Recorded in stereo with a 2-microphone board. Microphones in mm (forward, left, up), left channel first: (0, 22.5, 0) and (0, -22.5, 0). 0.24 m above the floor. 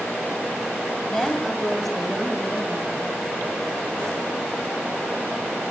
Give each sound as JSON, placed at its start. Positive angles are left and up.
{"t": 1.1, "sound": "a woman speaking", "side_deg": 10, "distance_m": 1.1}